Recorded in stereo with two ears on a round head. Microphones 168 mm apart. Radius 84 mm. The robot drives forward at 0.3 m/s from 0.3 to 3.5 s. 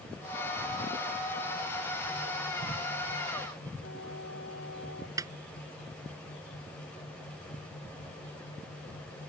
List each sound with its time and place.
3.8 s a flute: 65° left (ahead or behind)
5.2 s a snare drum: 20° right (ahead or behind)